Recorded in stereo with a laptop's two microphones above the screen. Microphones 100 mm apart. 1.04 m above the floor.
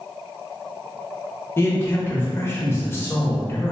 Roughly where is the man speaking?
Left.